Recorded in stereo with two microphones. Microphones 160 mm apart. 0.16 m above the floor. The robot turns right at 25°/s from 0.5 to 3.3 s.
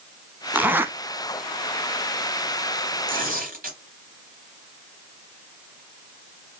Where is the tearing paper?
60° right (ahead or behind), 3 m.